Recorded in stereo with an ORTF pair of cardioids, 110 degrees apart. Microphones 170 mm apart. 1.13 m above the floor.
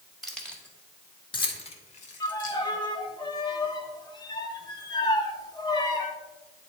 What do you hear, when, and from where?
0.2 s keys jangling: straight ahead, 1.6 m; by 2.6 s 55° left, 1.7 m
2.2 s a violin: 25° left, 1.0 m